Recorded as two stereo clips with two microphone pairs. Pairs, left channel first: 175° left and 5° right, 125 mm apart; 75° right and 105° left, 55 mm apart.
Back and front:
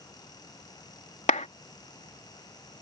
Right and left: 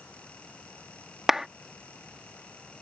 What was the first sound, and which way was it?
A clap, 170° right.